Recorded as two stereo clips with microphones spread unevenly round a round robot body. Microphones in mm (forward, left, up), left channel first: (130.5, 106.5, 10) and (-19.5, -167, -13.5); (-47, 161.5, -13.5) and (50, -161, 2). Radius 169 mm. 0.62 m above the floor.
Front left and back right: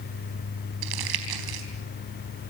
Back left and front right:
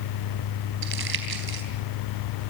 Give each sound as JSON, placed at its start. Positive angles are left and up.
{"t": 0.8, "sound": "crumpling", "azimuth_deg": -130, "distance_m": 4.0}